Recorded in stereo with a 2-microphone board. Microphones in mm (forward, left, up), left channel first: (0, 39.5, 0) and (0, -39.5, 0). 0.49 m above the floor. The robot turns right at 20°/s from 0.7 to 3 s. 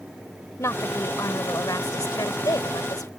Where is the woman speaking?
50° left; by 3.1 s 95° left.